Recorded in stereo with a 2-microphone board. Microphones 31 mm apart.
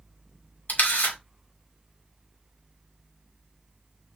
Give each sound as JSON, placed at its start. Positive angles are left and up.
{"t": 0.7, "sound": "a camera shutter", "side_deg": 65, "distance_m": 2.0}